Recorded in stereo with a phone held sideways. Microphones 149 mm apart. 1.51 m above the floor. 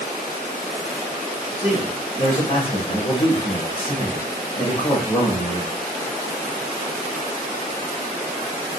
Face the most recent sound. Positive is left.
turn(degrees=35)  # may be behind; listen again after turning